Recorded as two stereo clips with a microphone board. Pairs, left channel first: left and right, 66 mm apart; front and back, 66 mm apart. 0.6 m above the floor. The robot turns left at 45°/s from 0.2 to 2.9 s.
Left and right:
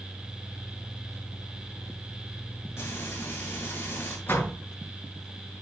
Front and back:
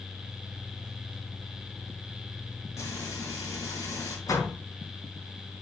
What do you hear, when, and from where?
2.8 s frying: 40° left, 4.5 m; by 4.2 s 35° left, 4.5 m
4.3 s a door slam: 30° left, 4.5 m